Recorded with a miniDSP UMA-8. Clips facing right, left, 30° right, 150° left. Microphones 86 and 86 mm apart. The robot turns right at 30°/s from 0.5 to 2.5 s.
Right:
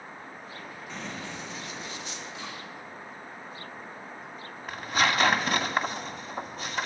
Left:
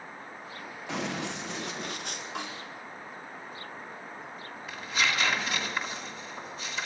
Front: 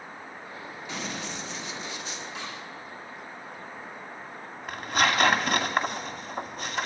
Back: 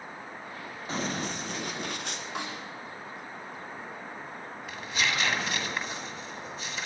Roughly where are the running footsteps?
Left.